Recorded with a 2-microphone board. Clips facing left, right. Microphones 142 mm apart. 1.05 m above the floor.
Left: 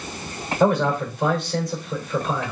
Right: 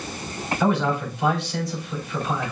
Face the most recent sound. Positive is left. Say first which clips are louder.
# left 3 dB
turn(degrees=45)  # may be behind; listen again after turning